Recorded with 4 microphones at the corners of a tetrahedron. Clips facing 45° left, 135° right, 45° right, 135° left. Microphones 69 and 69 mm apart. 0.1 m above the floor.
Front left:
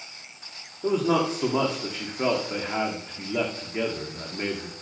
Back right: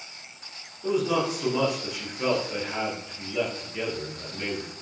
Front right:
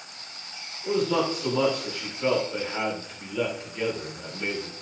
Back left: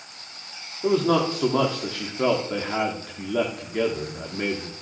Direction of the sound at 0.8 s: 100° left.